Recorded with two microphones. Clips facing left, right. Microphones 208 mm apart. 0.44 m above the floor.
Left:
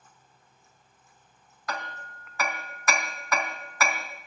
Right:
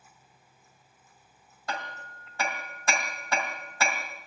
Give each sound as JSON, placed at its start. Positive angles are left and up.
{"t": 1.7, "sound": "hammering", "side_deg": -30, "distance_m": 3.5}